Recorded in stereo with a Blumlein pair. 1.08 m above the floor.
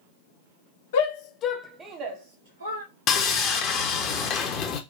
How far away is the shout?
About 0.9 m.